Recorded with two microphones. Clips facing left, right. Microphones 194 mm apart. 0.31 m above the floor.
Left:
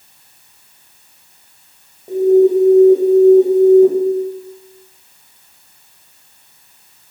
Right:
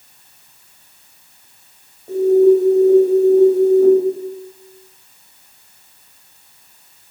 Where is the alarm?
20° left (ahead or behind), 2.0 m.